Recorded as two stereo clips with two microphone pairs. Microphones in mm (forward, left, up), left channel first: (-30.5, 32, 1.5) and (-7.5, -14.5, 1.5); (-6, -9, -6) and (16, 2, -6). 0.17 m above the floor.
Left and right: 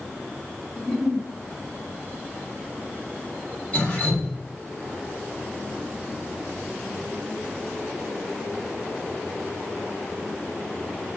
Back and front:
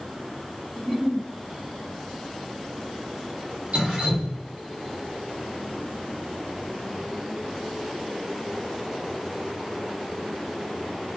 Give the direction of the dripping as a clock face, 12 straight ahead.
10 o'clock.